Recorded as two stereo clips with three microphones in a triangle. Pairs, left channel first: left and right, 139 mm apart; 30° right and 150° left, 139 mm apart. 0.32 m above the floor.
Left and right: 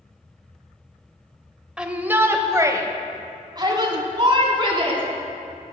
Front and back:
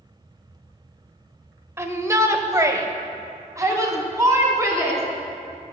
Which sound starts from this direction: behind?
A shout, at 1.8 s.